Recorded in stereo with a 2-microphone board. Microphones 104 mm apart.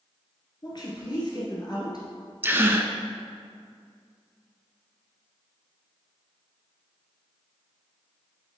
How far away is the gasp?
About 0.6 m.